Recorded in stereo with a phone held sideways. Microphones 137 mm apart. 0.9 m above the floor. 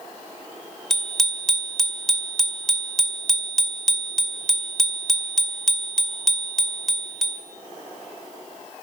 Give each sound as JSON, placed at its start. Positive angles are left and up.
{"t": 0.9, "sound": "a bicycle bell", "side_deg": 0, "distance_m": 2.0}